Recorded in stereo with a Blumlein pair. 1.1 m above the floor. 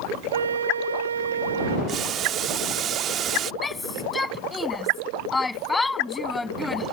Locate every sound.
0.3 s a flute: 70° right
1.9 s boiling: 30° right
3.6 s a shout: 10° left